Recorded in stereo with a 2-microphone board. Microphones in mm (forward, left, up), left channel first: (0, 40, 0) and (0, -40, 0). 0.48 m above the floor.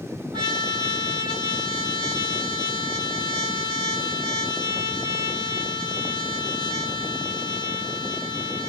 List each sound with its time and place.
0.3 s a trumpet: 75° right (ahead or behind), 6.5 m